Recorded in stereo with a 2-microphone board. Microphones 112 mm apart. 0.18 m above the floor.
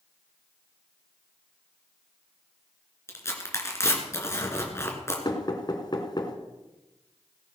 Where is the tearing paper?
25° left (ahead or behind), 3 m.